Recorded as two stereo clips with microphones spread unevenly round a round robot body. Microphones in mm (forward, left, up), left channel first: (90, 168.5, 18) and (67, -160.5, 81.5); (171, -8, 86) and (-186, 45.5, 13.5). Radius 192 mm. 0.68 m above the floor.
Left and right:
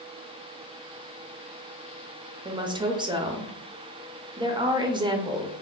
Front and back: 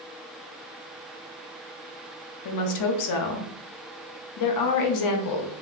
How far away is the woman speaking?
About 0.6 m.